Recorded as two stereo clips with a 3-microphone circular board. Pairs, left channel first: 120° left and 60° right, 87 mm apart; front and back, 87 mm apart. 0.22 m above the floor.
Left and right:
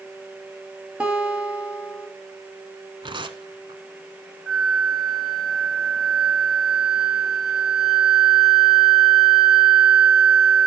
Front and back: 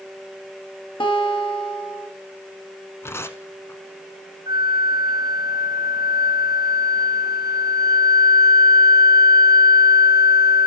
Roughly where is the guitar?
Ahead.